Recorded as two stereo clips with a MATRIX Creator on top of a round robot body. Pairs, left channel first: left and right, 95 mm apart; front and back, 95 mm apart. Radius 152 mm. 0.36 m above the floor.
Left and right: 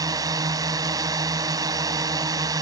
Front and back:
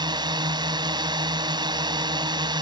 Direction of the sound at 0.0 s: 140° right.